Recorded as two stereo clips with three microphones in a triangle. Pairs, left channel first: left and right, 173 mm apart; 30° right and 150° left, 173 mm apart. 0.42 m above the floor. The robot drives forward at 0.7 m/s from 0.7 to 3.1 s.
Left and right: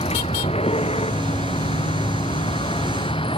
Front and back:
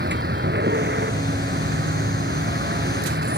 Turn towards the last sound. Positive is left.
turn(degrees=150)